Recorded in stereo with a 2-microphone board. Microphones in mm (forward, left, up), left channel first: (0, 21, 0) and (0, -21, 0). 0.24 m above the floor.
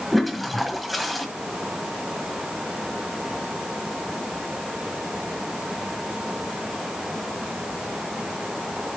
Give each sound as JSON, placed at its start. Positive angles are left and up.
{"t": 0.1, "sound": "a toilet flushing", "side_deg": 0, "distance_m": 1.5}